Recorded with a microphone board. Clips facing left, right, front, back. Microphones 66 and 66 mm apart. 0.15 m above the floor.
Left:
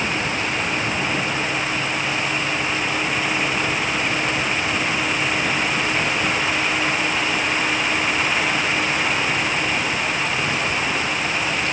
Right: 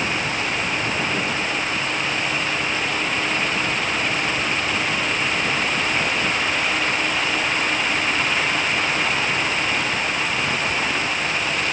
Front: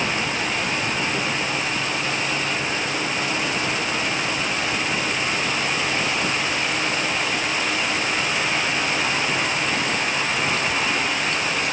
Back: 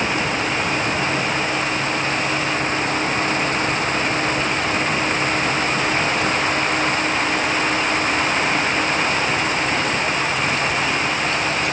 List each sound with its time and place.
Only background noise.